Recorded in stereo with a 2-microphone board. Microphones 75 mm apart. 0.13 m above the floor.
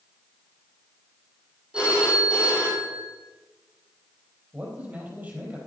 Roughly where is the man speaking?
Right.